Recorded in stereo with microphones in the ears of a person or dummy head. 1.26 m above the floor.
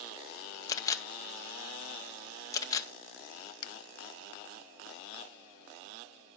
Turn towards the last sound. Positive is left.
turn(degrees=70)  # may be behind; listen again after turning